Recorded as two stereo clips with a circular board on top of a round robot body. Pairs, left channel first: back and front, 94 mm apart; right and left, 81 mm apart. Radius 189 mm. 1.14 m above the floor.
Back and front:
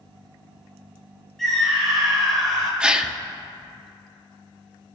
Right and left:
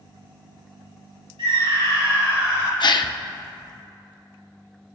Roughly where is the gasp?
Right.